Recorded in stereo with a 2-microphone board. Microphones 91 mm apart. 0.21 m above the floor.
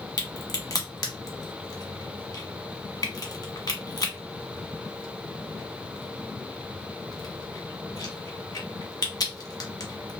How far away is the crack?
About 1.0 m.